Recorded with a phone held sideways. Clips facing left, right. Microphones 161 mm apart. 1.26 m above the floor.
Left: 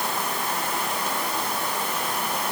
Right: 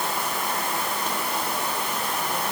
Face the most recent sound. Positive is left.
No sound to turn to.